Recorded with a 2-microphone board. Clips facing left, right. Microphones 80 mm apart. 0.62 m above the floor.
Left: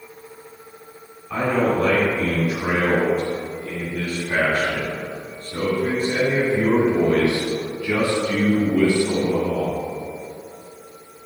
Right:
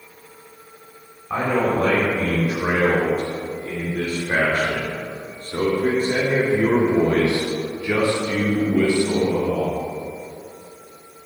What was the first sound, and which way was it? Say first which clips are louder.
A man speaking: even; 35° right (ahead or behind).